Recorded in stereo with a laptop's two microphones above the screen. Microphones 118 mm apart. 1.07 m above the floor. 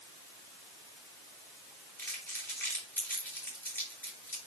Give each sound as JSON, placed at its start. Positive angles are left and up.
{"t": 2.0, "sound": "crumpling", "side_deg": 15, "distance_m": 3.0}